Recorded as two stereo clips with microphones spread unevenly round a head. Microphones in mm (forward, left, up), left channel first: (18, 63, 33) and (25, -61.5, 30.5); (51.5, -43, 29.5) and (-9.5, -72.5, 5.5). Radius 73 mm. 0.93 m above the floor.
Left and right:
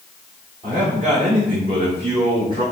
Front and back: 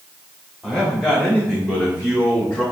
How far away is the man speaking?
About 2.5 m.